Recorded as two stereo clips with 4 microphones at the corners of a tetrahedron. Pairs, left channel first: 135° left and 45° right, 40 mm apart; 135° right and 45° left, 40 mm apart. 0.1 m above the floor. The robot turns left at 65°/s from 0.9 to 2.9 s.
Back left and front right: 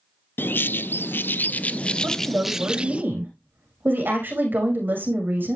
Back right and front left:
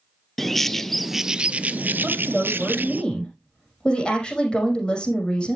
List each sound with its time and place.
0.4 s a bird: 140° left, 0.5 m; by 3.0 s 10° left, 0.5 m
2.0 s a woman speaking: 15° right, 6 m; by 5.6 s 70° right, 6 m